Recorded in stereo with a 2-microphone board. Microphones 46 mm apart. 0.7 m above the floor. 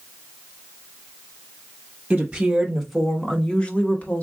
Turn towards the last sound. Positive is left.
turn(degrees=40)  # may be behind; listen again after turning